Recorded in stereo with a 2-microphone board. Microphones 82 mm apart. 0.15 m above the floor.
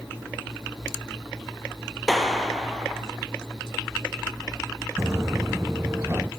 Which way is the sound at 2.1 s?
Centre (ahead or behind).